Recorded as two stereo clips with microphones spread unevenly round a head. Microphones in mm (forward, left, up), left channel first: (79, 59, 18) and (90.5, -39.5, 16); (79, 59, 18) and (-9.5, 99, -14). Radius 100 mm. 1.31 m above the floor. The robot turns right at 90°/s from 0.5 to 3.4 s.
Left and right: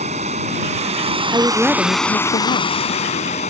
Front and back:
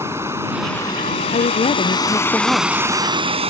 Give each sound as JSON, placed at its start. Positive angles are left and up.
{"t": 0.0, "sound": "running water", "azimuth_deg": -125}
{"t": 1.3, "sound": "a woman speaking", "azimuth_deg": -25}